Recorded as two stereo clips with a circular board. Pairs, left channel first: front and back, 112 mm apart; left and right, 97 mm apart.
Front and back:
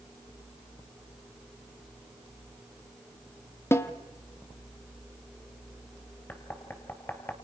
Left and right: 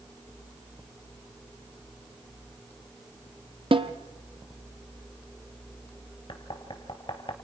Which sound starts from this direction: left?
Knocking, at 6.3 s.